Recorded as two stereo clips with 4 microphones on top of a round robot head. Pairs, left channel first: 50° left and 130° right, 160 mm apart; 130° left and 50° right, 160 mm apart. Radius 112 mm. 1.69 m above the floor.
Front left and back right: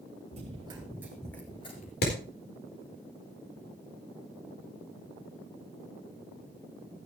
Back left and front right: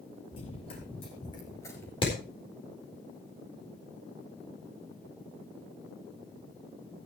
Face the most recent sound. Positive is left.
turn(degrees=70)